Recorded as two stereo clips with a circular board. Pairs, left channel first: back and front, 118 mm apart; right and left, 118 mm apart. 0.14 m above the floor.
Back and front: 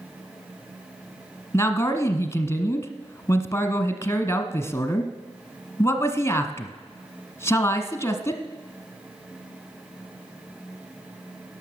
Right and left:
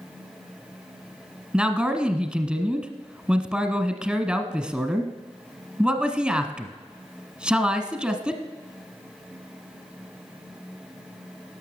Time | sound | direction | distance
1.5 | a man speaking | 160° left | 1.1 m